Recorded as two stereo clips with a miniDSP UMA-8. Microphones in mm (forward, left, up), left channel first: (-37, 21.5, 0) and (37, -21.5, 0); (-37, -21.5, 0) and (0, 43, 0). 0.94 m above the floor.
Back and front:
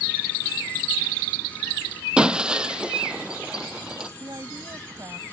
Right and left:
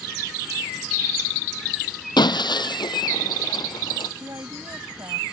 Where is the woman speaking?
20° left.